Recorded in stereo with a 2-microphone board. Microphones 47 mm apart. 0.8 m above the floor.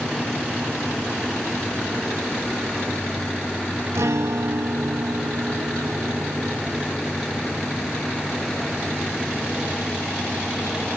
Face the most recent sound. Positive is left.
turn(degrees=-70)  # may be behind; listen again after turning